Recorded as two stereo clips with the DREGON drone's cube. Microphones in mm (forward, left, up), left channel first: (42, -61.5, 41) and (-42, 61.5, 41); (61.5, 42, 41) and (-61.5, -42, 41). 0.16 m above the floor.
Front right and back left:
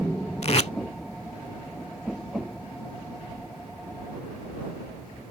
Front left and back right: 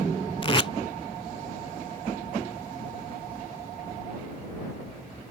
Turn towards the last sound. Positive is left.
turn(degrees=-15)